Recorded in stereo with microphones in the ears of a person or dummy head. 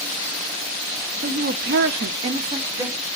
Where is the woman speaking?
45° right (ahead or behind), 0.7 m; by 3.1 s 15° right (ahead or behind), 1.1 m.